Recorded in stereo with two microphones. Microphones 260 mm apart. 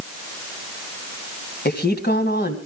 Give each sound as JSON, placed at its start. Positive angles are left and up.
{"t": 1.6, "sound": "a woman speaking", "side_deg": 40, "distance_m": 3.0}